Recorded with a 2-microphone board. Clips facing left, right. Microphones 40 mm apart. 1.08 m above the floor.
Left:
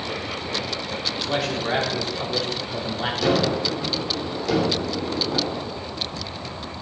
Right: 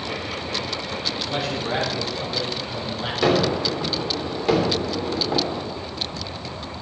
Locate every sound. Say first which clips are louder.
1.2 s a man speaking: left 3 dB; 65° left (ahead or behind), 3 m
3.2 s a gunshot: right 2 dB; 30° right (ahead or behind), 3 m